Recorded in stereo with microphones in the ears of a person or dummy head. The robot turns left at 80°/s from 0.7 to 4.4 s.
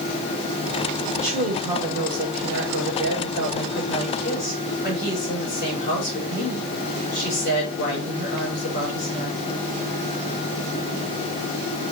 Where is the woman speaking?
25° left, 4.5 m; by 9.4 s 125° left, 4.5 m.